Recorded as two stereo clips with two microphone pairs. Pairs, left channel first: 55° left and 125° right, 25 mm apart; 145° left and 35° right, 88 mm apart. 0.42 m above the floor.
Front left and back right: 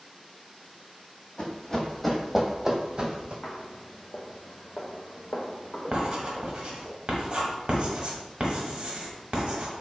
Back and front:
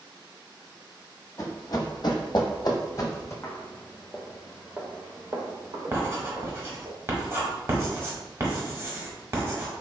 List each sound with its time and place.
1.4 s running footsteps: 105° left, 0.8 m; by 3.3 s 165° right, 0.9 m
3.4 s footsteps: 90° left, 1.1 m; by 6.9 s 10° right, 1.8 m
5.9 s writing: 90° right, 0.8 m